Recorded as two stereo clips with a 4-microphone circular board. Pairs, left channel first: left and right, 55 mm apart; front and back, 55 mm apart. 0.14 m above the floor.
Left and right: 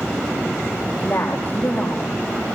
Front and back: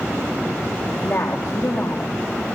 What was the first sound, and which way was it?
A woman speaking, 35° left.